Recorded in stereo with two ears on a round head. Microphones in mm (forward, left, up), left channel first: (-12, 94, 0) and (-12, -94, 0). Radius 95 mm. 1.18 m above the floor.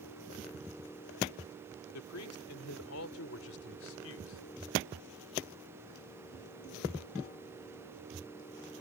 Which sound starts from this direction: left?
A man speaking, at 1.9 s.